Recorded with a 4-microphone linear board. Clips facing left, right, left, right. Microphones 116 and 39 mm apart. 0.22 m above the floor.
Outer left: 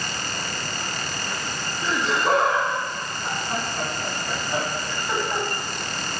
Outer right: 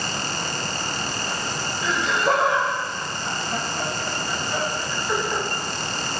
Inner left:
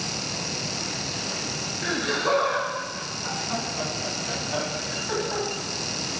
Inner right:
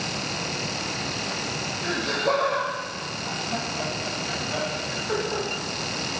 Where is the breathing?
No breathing in this recording.